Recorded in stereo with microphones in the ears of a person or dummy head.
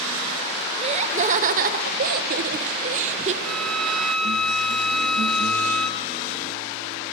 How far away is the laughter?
About 1.1 m.